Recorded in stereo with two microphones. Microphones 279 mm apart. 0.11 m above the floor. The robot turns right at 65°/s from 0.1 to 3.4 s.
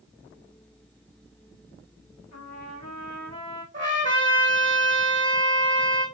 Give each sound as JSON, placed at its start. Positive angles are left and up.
{"t": 2.3, "sound": "a trumpet", "azimuth_deg": 70, "distance_m": 3.5}
{"t": 3.7, "sound": "a trumpet", "side_deg": -40, "distance_m": 3.0}